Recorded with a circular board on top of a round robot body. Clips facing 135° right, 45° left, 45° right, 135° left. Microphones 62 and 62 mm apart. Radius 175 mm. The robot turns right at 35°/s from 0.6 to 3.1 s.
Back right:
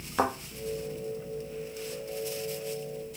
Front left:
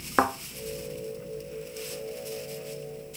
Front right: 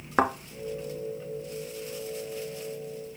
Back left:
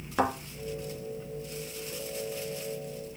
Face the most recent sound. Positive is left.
turn(degrees=90)